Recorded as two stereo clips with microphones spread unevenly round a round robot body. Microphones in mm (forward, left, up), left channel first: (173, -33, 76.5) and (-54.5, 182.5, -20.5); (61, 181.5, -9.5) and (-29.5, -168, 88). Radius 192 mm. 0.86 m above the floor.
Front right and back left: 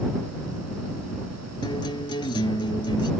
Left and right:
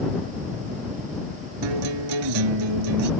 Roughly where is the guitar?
Behind right.